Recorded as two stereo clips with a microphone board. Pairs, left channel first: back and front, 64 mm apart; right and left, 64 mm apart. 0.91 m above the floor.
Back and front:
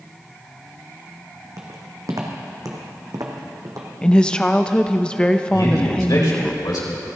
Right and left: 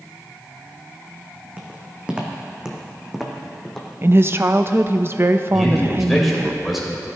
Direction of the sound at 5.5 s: Straight behind.